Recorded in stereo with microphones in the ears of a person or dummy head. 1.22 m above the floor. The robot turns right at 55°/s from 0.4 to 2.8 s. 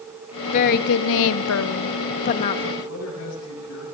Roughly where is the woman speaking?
Ahead left.